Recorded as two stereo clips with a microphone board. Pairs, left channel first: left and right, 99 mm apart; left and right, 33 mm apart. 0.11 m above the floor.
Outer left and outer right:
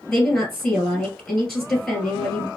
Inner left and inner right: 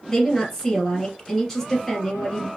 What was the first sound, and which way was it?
A woman speaking, centre (ahead or behind).